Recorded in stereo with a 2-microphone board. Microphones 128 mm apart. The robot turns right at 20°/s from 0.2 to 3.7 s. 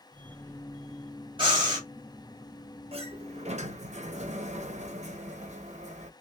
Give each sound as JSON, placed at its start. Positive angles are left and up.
{"t": 1.4, "sound": "breathing", "side_deg": -40, "distance_m": 1.6}
{"t": 2.9, "sound": "a sliding door", "side_deg": -50, "distance_m": 0.6}